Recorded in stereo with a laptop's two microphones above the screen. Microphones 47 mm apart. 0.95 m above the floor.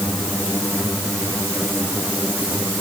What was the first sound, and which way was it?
Only background noise.